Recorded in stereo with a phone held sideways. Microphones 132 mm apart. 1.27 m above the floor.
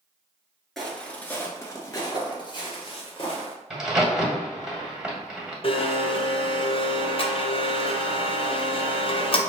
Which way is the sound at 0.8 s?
Centre (ahead or behind).